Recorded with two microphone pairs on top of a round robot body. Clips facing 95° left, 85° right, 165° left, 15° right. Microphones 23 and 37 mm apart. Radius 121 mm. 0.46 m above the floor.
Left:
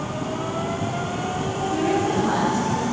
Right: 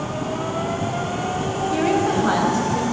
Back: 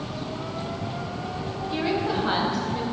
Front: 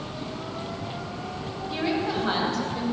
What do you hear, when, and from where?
1.7 s a woman speaking: 105° right, 4 m; by 2.8 s 115° right, 3.5 m